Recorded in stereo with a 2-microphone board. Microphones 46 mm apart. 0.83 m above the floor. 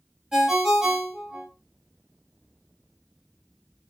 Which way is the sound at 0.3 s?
10° right (ahead or behind).